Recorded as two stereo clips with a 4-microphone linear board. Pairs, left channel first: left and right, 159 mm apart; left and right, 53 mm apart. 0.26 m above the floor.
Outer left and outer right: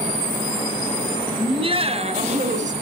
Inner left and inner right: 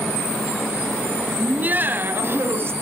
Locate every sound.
1.4 s laughter: 30° right (ahead or behind), 1.3 m; by 2.7 s 50° right (ahead or behind), 1.6 m